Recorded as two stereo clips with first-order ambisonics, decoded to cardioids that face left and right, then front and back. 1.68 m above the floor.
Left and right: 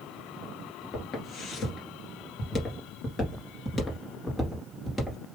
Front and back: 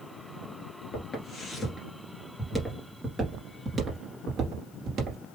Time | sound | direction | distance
0.9 | footsteps | 50° left | 2 m